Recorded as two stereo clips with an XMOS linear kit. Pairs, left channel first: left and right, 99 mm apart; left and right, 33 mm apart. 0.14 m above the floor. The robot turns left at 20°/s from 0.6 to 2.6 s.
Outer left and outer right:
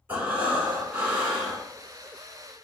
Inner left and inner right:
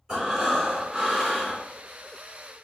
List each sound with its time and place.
0.1 s breathing: 20° right (ahead or behind), 1.9 m; by 1.6 s 10° right (ahead or behind), 1.9 m